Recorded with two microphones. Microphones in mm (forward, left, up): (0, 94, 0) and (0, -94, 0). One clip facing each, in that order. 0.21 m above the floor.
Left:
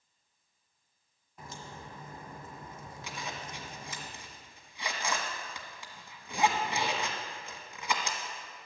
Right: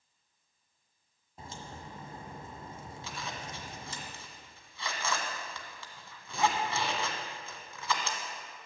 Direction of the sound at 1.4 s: 30° right (ahead or behind).